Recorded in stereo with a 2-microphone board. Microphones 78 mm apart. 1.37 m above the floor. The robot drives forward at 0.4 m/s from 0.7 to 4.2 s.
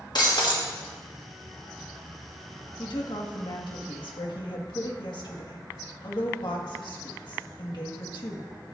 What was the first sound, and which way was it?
Breaking glass, 65° left (ahead or behind).